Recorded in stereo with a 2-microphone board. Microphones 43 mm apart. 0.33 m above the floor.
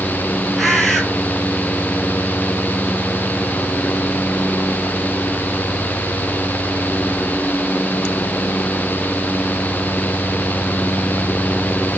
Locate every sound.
0.6 s a bird: 5° right (ahead or behind), 6 m